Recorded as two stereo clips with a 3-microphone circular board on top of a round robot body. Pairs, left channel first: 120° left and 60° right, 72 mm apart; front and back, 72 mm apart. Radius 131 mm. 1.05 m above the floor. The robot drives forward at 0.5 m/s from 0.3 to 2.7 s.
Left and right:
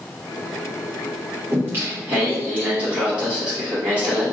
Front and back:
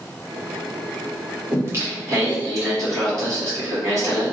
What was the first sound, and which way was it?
Singing, 120° right.